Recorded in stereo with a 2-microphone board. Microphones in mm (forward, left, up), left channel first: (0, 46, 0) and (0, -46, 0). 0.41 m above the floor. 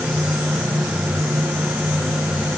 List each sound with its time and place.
Only background noise.